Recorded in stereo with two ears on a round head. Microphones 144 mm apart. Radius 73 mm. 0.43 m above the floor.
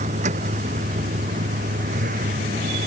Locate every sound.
0.0 s a vehicle: 45° right (ahead or behind); by 2.9 s 50° right (ahead or behind)